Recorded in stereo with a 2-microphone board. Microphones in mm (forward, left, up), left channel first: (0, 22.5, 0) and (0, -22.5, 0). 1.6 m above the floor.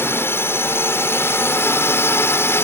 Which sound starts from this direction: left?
A drone, at 0.0 s.